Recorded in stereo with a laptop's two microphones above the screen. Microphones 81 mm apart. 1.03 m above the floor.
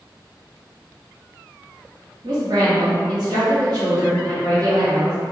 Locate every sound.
2.2 s a woman speaking: 60° right (ahead or behind), 1.9 m